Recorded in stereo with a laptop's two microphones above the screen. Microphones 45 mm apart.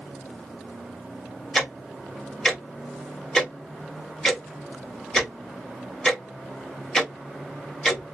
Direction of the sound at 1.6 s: 15° left (ahead or behind).